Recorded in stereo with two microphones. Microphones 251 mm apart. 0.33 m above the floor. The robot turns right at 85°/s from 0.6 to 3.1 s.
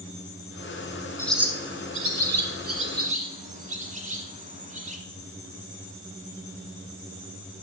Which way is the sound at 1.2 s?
10° left (ahead or behind).